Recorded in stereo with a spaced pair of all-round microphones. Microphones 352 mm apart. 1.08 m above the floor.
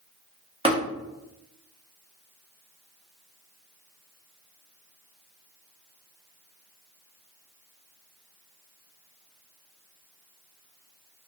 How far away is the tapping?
About 1.0 m.